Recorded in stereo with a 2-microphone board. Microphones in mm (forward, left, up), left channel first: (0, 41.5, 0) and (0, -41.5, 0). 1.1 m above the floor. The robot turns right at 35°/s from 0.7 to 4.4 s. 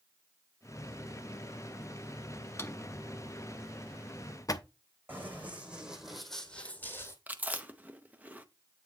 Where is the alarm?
No alarm in this recording.